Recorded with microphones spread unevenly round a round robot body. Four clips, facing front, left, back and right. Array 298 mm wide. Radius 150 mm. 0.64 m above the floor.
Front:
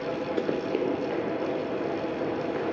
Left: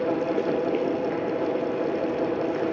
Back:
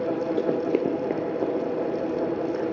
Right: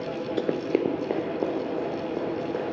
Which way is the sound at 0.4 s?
85° right.